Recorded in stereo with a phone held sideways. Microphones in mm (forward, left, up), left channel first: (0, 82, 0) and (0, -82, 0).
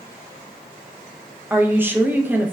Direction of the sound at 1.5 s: 10° right (ahead or behind).